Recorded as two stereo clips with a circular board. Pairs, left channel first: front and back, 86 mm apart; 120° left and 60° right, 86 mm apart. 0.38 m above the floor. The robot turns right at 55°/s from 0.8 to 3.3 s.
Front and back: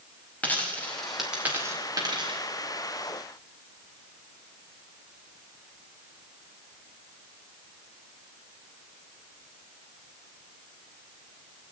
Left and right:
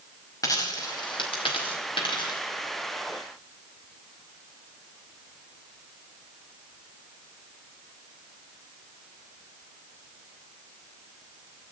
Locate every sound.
0.4 s a dropped coin: 70° left, 5 m; by 2.4 s 160° left, 5 m